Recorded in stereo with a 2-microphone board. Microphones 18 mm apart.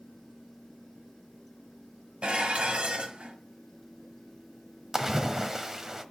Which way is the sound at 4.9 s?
20° right (ahead or behind).